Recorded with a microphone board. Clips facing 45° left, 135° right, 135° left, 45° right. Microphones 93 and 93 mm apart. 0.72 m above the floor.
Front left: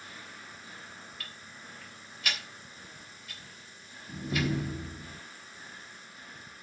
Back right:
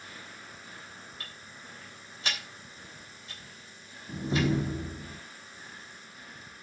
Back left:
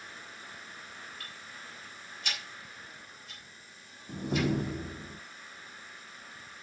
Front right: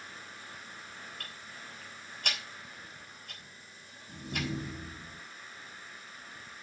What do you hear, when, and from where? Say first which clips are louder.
1.2 s ticking: even, even; 75° right, 3.5 m
4.1 s a door slam: back right 3 dB, back left 7 dB; 165° left, 0.9 m